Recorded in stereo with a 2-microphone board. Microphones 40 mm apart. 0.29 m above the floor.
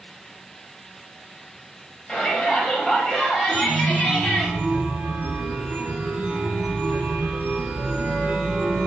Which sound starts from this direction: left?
A shout, at 2.1 s.